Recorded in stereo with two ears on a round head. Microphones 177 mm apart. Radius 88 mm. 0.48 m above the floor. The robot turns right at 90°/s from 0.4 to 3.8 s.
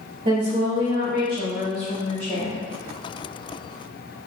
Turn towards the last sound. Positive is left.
turn(degrees=180)